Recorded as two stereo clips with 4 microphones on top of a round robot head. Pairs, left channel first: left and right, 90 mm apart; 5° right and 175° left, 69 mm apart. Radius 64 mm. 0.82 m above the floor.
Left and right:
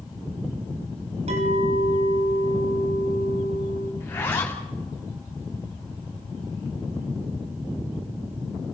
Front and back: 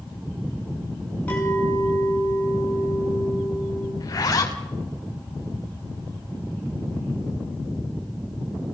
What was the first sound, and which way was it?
A clink, 80° right.